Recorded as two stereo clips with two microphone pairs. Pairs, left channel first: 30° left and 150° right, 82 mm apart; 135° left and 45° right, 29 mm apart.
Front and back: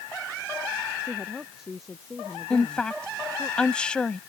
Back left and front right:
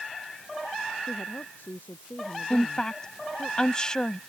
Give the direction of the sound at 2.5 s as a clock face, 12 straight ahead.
9 o'clock.